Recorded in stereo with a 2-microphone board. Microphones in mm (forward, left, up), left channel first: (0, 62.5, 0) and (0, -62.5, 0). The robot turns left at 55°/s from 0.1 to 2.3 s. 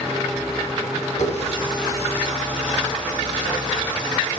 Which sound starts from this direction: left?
A running tap, at 1.2 s.